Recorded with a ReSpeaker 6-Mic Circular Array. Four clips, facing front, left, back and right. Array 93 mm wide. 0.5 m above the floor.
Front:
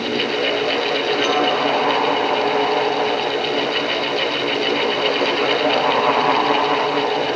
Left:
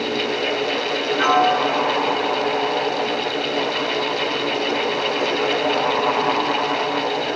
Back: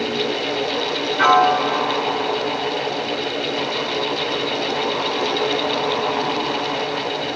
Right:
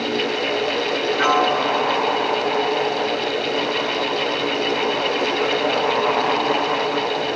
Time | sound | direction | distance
1.2 | a piano | 175° right | 2 m